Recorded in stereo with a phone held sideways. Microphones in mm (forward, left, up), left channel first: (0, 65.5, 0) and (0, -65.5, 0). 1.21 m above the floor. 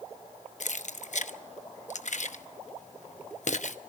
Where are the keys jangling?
65° left (ahead or behind), 1.0 m.